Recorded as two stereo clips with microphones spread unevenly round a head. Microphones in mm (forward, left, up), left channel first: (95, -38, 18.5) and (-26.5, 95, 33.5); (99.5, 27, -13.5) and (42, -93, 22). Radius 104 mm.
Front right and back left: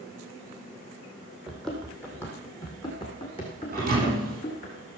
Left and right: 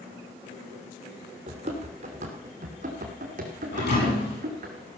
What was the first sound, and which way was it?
Running footsteps, 140° right.